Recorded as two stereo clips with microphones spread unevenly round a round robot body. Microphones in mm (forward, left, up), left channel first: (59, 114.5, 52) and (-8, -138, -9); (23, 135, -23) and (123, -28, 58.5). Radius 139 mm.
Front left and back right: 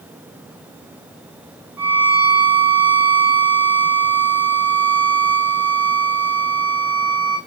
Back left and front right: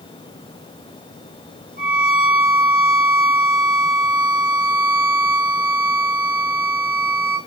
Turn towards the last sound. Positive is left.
turn(degrees=-20)